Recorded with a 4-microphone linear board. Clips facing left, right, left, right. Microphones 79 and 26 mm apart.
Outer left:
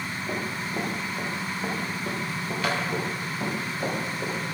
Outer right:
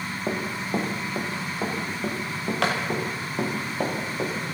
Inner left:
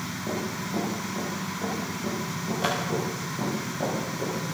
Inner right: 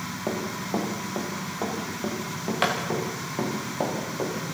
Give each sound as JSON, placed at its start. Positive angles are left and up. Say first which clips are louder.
{"t": 0.3, "sound": "running footsteps", "louder": "outer right 5 dB, inner right 2 dB", "side_deg": -80, "distance_m": 7.5}